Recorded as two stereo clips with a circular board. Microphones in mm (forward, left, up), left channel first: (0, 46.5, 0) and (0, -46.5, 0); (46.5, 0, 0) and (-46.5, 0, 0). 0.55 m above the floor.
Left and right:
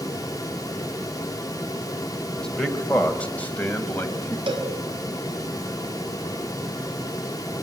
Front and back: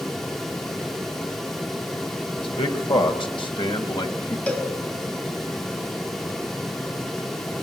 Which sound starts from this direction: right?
A cowbell, at 4.5 s.